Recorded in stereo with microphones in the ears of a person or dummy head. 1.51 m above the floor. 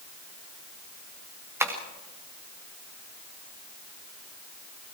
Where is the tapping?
10° right (ahead or behind), 2.5 m.